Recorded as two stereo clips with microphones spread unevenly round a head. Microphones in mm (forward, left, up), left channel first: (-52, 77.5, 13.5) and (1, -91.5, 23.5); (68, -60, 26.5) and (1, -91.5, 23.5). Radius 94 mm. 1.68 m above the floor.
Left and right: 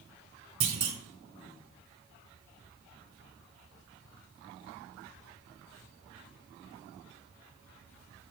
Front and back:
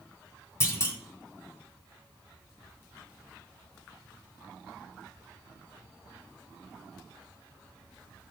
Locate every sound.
0.6 s a clunk: 20° right, 2.5 m